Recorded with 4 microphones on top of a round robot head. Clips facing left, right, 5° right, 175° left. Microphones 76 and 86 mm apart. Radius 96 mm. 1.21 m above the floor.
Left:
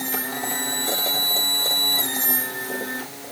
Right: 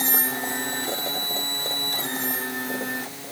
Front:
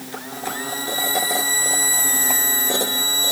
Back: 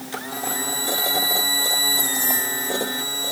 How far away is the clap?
No clap in this recording.